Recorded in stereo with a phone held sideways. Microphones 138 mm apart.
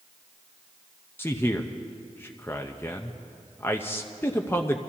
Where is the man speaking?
15° left (ahead or behind), 0.7 m.